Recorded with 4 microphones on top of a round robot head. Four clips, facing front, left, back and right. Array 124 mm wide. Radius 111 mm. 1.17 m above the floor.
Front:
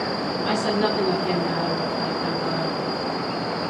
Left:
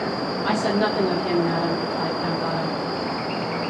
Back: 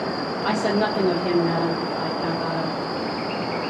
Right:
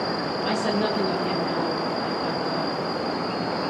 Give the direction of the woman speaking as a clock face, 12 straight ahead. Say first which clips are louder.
Left 3 dB, back 1 dB; 6 o'clock.